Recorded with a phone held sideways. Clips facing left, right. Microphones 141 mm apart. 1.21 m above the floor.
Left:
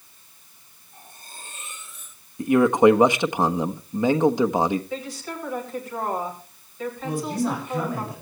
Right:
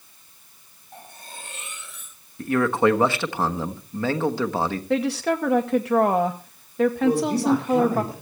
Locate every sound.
0.9 s cutlery clinking: 70° right (ahead or behind), 4.5 m
2.4 s a man speaking: 15° left (ahead or behind), 1.2 m
4.9 s a woman speaking: 70° right (ahead or behind), 2 m
7.0 s a man speaking: 40° right (ahead or behind), 4.5 m